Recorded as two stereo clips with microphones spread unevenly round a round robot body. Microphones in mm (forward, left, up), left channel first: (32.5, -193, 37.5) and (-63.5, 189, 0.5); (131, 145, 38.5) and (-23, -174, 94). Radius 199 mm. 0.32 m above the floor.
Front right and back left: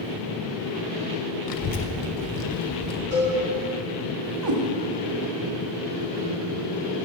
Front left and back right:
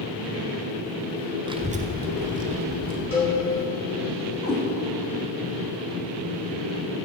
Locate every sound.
1.5 s a child speaking: 35° right, 0.8 m; by 3.0 s 60° right, 1.5 m
3.1 s a cowbell: 20° left, 3 m
4.4 s a cat meowing: 135° left, 1.1 m